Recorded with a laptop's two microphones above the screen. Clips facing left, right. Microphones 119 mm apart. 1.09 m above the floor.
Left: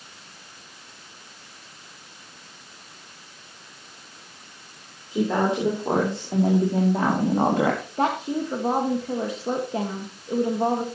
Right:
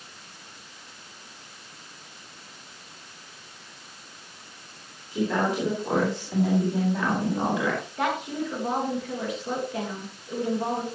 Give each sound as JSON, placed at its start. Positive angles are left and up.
{"t": 5.1, "sound": "a woman speaking", "side_deg": 25, "distance_m": 3.0}
{"t": 8.0, "sound": "a woman speaking", "side_deg": 35, "distance_m": 1.5}